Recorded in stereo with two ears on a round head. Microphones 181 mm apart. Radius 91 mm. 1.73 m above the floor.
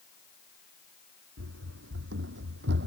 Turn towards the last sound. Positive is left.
turn(degrees=-60)  # may be behind; listen again after turning